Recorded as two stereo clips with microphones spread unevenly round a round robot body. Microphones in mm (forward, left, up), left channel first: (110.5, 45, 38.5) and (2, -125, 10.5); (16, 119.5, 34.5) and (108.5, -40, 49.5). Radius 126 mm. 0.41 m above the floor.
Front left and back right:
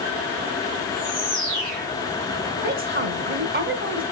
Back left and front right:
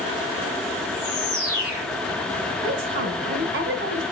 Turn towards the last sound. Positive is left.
turn(degrees=-105)